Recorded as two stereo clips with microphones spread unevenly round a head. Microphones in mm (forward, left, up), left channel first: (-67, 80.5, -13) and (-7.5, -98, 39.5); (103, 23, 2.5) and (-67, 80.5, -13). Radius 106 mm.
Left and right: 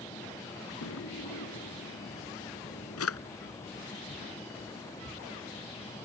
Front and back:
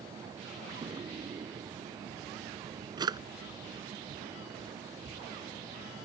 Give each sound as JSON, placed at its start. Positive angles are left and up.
{"t": 0.8, "sound": "a drawer", "azimuth_deg": 95}